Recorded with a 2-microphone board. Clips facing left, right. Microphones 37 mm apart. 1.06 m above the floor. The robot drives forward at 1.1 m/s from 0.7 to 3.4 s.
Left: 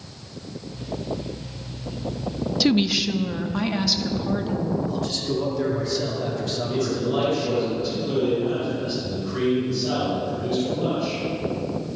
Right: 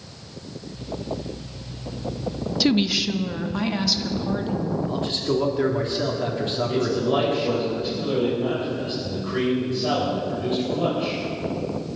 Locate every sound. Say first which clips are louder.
2.6 s a woman speaking: even; 5° right (ahead or behind), 0.6 m; by 4.8 s centre (ahead or behind), 1.4 m
4.9 s a man speaking: right 2 dB; 30° right (ahead or behind), 2.5 m
6.7 s a man speaking: right 2 dB; 45° right (ahead or behind), 5 m